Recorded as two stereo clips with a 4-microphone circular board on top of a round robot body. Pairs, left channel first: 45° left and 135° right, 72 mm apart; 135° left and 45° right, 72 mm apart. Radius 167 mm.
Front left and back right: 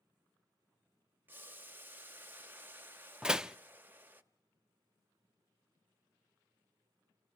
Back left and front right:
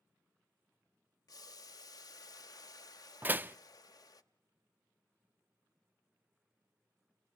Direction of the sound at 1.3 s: 160° left.